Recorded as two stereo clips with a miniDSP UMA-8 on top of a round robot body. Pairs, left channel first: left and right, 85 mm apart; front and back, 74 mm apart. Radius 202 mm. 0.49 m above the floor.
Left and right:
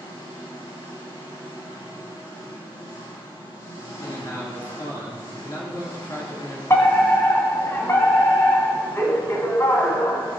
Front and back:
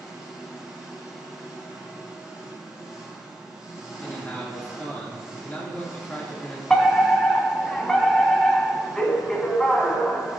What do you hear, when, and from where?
0.0 s an engine running: 100° left, 4.5 m
4.0 s a man speaking: 60° left, 1.8 m
6.7 s a fire alarm: 75° left, 2 m